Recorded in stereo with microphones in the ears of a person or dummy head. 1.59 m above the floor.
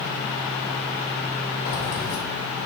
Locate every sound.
1.6 s keys jangling: 45° left (ahead or behind), 1.0 m